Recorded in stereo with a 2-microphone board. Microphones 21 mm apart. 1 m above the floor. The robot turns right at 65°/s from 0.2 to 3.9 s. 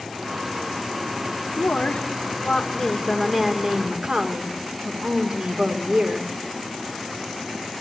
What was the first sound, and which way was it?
A woman speaking, 75° left.